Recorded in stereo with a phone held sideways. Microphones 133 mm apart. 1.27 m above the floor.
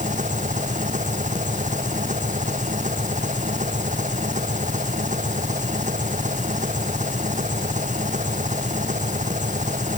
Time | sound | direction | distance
0.0 | an engine running | 70° right (ahead or behind) | ?